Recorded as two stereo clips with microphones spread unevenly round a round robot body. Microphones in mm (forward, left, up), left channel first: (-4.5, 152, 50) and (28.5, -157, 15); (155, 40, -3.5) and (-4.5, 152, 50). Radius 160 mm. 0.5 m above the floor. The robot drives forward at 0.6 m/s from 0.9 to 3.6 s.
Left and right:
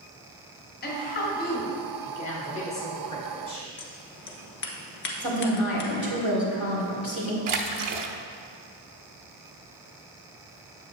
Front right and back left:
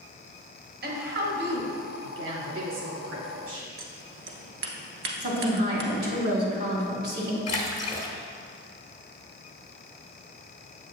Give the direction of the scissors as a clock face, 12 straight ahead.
7 o'clock.